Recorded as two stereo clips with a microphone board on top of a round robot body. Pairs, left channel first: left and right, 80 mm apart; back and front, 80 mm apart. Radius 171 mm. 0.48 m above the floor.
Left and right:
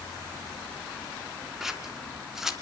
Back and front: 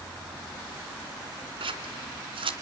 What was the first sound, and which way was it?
Scissors, 5° right.